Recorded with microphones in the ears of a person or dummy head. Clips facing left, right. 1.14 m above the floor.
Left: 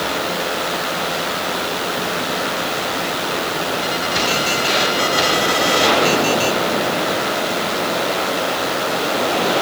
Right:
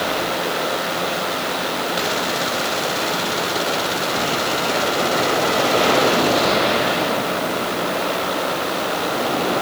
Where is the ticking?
No ticking in this recording.